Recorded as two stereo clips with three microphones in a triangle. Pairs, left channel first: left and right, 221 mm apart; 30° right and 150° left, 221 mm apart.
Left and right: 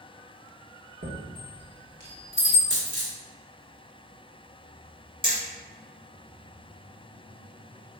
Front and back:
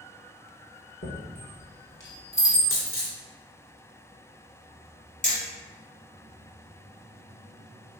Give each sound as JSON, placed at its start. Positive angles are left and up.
{"t": 1.0, "sound": "a chime", "azimuth_deg": -60, "distance_m": 1.2}
{"t": 2.7, "sound": "a dropped coin", "azimuth_deg": -55, "distance_m": 1.7}
{"t": 5.2, "sound": "hammering", "azimuth_deg": -40, "distance_m": 1.5}